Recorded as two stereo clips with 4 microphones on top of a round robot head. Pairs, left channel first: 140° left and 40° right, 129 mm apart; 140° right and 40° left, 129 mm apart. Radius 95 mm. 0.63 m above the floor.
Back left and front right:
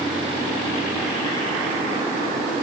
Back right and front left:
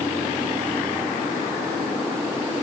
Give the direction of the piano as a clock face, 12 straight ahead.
I don't hear a piano.